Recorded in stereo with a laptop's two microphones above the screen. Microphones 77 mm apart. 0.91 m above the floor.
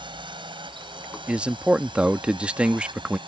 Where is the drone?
75° right (ahead or behind).